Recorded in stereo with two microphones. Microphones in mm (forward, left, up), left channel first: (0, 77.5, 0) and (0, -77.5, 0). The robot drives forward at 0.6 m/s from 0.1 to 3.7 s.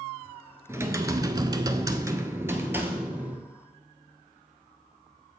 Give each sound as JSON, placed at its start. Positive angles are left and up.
{"t": 0.7, "sound": "typing on a keyboard", "side_deg": -15, "distance_m": 0.7}